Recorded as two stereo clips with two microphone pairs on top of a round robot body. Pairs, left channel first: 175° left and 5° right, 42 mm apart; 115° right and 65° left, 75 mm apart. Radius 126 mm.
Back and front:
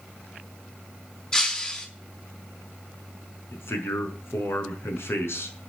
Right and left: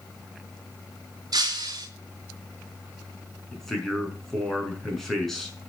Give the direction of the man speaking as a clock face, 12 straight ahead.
7 o'clock.